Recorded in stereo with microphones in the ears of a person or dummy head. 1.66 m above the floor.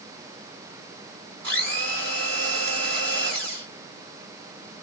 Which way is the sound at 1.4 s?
65° right (ahead or behind).